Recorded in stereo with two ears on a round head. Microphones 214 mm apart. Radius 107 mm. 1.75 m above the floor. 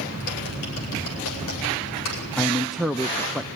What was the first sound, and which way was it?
Typing on a keyboard, 75° left (ahead or behind).